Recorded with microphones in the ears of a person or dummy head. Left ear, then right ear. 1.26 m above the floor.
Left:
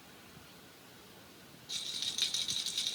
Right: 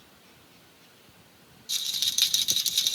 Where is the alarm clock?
I don't hear an alarm clock.